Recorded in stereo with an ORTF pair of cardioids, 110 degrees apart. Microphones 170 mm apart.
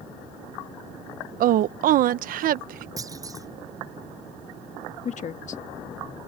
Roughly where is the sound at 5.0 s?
Ahead left.